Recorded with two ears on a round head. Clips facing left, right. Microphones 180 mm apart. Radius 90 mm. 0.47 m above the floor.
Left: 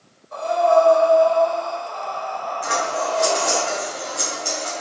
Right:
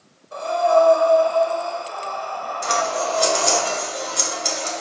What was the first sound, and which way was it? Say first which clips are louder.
Breathing: left 1 dB; 30° right (ahead or behind).